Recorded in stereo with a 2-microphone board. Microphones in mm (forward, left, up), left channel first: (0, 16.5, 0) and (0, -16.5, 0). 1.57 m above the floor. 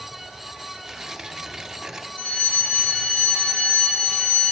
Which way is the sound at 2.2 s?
35° left (ahead or behind).